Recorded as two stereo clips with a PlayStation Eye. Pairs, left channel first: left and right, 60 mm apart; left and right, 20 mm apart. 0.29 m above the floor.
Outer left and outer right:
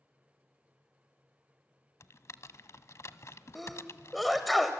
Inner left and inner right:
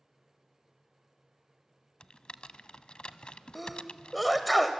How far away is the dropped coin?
I don't hear a dropped coin.